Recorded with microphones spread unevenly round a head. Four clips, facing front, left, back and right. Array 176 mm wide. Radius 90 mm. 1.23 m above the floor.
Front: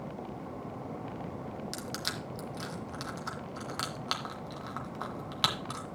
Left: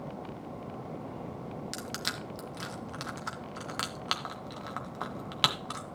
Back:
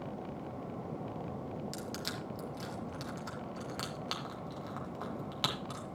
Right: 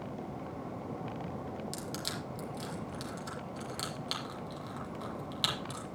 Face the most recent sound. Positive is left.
turn(degrees=50)